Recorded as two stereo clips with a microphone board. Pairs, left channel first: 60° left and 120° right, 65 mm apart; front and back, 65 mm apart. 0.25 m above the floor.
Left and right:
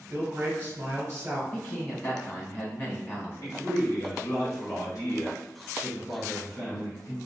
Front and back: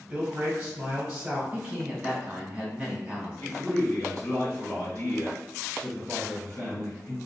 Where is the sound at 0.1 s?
130° right, 1.1 m.